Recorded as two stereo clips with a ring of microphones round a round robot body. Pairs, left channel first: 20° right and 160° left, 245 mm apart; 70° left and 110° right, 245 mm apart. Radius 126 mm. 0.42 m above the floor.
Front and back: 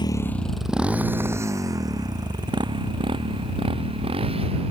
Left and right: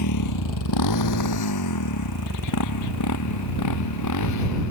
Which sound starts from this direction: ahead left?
A motorcycle, at 0.0 s.